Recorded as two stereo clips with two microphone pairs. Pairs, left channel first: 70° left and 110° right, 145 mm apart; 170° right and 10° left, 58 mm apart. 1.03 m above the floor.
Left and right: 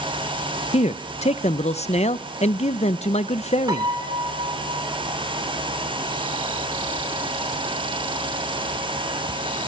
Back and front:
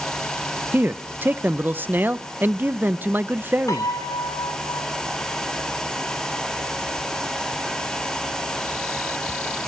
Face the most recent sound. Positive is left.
turn(degrees=-170)